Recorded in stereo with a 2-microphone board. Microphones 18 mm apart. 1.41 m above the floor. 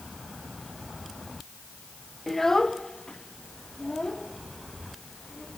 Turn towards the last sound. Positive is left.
turn(degrees=65)  # may be behind; listen again after turning